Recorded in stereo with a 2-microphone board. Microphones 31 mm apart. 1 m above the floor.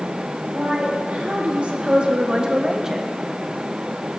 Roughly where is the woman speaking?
Right.